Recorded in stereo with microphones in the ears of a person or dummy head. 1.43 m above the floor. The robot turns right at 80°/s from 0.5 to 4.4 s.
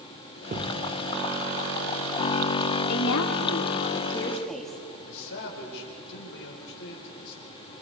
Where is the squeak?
I don't hear a squeak.